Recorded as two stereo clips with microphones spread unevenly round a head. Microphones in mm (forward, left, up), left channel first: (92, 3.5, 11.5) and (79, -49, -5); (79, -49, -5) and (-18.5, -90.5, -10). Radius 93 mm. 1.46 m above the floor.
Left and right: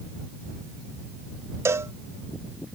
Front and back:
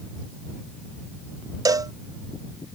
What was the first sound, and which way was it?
A cowbell, 105° right.